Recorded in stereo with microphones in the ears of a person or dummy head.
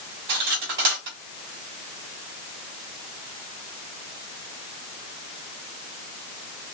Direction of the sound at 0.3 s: 55° right (ahead or behind).